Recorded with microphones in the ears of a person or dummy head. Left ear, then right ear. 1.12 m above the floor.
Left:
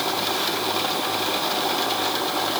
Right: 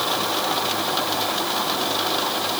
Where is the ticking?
No ticking in this recording.